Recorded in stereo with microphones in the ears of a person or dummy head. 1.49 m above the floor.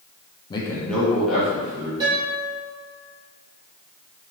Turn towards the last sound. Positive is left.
turn(degrees=-20)  # may be behind; listen again after turning